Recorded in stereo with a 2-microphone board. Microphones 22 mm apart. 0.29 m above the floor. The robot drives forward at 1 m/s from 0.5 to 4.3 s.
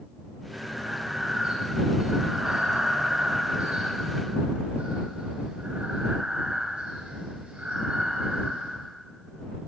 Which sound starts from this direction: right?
Breathing, at 0.5 s.